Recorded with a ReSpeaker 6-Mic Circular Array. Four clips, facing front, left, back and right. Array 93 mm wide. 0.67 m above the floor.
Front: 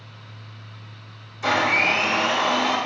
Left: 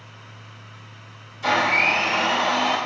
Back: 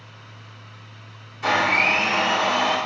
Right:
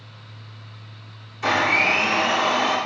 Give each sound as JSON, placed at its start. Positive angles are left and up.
{"t": 1.4, "sound": "a blender", "azimuth_deg": -110, "distance_m": 1.4}